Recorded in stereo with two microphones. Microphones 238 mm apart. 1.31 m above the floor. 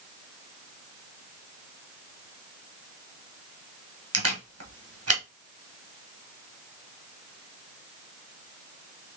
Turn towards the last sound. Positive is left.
turn(degrees=-70)  # may be behind; listen again after turning